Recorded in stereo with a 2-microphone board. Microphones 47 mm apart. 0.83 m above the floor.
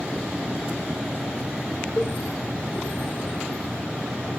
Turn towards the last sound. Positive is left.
turn(degrees=50)  # may be behind; listen again after turning